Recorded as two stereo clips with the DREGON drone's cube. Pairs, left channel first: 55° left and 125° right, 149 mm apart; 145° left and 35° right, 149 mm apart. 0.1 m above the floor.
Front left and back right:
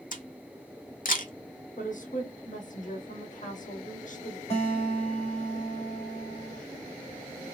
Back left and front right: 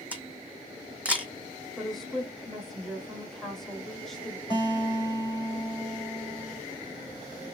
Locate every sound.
0.1 s a camera shutter: 45° left, 0.8 m
1.8 s a woman speaking: 60° left, 2 m
4.5 s a guitar: 90° left, 3 m